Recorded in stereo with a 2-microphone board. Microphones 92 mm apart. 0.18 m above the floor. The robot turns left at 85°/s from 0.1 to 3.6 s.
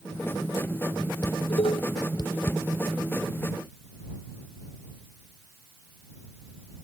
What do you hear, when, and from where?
1.2 s dishes clattering: 45° left (ahead or behind); by 2.6 s 15° left (ahead or behind)